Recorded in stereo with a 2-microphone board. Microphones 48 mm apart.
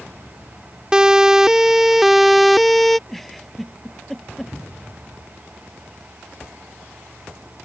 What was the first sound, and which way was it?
A siren, 15° right (ahead or behind).